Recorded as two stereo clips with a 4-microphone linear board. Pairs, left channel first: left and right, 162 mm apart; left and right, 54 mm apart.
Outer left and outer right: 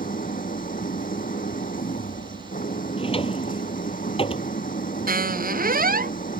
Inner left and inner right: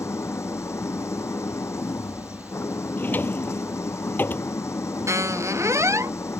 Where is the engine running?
65° left (ahead or behind).